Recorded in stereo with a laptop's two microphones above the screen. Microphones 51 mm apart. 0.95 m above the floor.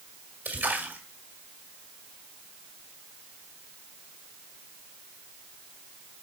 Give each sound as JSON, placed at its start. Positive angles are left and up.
{"t": 0.5, "sound": "a splash", "side_deg": -35, "distance_m": 1.7}